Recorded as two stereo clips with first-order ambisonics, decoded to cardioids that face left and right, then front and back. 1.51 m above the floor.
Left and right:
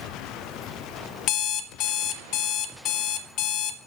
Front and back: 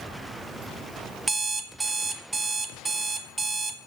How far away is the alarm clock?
About 1.1 m.